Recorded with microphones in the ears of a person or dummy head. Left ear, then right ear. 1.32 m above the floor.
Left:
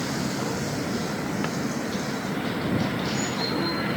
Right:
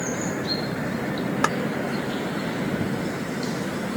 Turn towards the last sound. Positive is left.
turn(degrees=-55)  # may be behind; listen again after turning